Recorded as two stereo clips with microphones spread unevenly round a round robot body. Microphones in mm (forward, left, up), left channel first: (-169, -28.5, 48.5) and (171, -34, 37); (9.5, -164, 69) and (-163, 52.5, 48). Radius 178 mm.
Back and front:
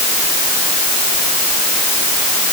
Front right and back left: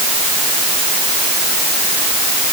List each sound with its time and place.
Only background noise.